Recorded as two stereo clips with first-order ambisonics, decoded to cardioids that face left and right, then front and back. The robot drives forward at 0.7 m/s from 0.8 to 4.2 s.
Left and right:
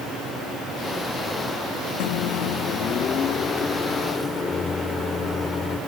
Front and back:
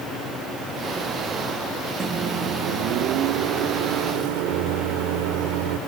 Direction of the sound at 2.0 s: 100° left.